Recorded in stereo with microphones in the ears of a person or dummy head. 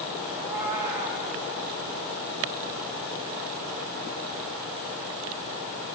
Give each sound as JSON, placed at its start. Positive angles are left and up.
{"t": 0.3, "sound": "a cat meowing", "side_deg": -15, "distance_m": 0.5}